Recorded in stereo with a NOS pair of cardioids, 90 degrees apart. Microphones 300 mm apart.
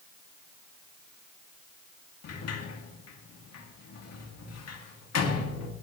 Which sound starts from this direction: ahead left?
A sliding door, at 2.2 s.